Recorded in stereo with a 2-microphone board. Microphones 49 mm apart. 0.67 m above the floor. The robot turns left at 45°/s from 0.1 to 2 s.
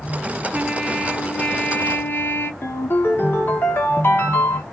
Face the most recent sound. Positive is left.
turn(degrees=45)  # may be behind; listen again after turning